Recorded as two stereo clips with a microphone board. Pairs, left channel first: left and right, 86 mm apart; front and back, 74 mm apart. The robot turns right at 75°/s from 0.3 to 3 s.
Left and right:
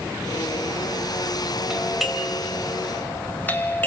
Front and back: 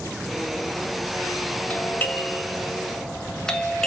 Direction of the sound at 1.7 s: 30° right.